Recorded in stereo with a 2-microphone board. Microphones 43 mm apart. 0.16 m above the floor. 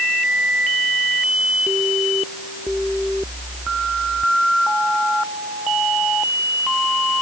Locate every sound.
Only background noise.